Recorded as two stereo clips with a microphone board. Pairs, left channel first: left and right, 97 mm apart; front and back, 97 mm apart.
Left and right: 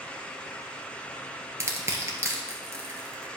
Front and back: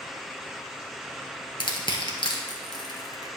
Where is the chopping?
No chopping in this recording.